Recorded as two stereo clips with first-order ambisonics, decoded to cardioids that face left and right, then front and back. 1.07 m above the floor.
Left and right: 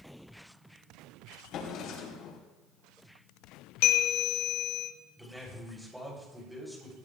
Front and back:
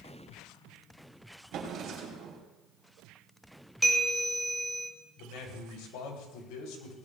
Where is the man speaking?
5° right, 3 m.